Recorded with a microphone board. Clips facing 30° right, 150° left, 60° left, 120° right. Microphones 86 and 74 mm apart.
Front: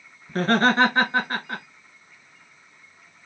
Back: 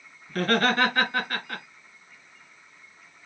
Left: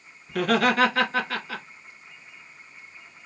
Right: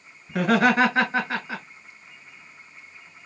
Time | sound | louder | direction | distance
0.3 | laughter | front 3 dB, right 2 dB | 70° right | 1.3 m